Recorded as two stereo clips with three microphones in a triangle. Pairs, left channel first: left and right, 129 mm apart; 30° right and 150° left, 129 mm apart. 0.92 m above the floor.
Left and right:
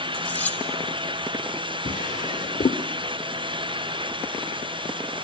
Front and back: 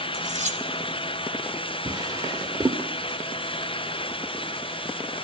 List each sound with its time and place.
0.1 s cutlery clinking: 165° left, 3 m
1.9 s a drawer: 95° left, 1.1 m